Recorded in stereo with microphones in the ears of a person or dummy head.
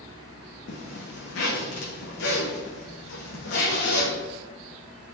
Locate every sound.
0.7 s a zipper: 60° left (ahead or behind), 1.5 m